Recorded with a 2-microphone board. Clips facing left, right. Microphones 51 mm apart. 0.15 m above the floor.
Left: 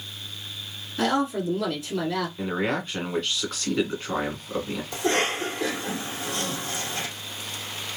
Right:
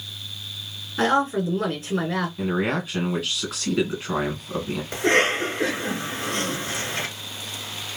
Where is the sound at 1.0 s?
45° right (ahead or behind), 1.7 m.